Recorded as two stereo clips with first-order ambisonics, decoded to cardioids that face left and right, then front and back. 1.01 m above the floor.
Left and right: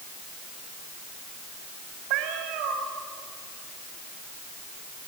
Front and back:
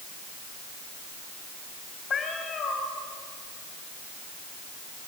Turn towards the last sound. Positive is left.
turn(degrees=-70)